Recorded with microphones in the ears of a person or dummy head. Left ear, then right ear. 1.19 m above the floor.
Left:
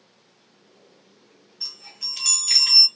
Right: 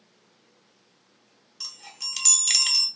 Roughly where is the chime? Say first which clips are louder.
Left 3 dB; right.